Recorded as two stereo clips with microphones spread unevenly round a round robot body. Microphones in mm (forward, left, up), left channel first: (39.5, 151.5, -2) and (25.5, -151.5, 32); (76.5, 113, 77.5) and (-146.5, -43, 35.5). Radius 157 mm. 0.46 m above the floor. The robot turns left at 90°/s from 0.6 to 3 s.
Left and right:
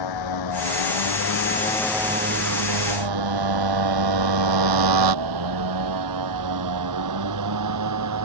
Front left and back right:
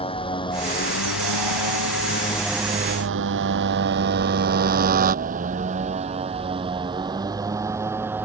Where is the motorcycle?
105° left; by 8.3 s 60° right.